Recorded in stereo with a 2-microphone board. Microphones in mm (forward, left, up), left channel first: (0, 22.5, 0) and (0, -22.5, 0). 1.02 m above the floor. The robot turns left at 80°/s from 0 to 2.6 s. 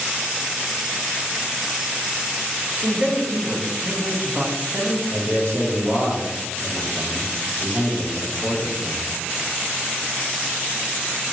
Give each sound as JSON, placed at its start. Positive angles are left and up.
{"t": 2.8, "sound": "a man speaking", "side_deg": -25, "distance_m": 0.6}
{"t": 5.1, "sound": "a man speaking", "side_deg": -70, "distance_m": 1.0}